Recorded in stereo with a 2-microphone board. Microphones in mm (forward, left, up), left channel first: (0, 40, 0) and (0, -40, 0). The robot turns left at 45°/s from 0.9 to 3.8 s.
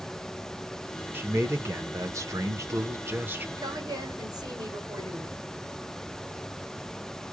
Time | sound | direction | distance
1.1 | a man speaking | 40° right | 0.9 m
3.6 | a woman speaking | 60° right (ahead or behind) | 2 m